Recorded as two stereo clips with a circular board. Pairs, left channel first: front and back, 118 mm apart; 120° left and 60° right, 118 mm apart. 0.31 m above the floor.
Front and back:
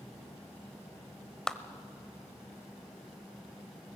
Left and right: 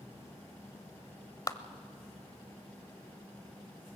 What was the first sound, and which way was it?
A clap, 80° left.